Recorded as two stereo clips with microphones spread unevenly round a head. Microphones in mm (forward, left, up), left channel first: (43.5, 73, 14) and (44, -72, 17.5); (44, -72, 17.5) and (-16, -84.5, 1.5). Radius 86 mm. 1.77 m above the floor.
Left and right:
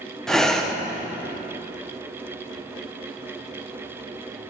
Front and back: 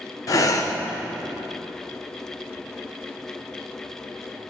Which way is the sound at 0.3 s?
5° left.